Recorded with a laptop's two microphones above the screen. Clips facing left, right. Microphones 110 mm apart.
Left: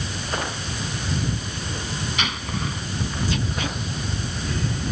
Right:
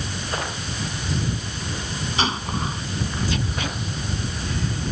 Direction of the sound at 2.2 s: 35° right (ahead or behind).